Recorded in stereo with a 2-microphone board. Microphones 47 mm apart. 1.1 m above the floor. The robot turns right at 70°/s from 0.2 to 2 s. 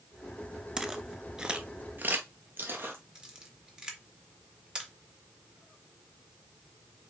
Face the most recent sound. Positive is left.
turn(degrees=-15)  # may be behind; listen again after turning